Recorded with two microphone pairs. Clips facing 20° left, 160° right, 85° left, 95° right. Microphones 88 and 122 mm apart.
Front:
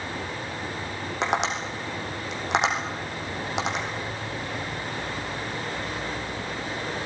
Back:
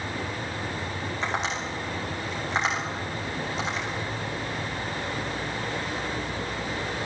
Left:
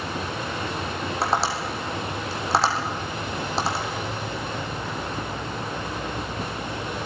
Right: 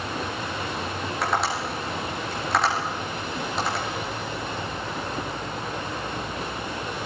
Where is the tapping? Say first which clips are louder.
Front 4 dB, left 1 dB; 30° left, 5 m.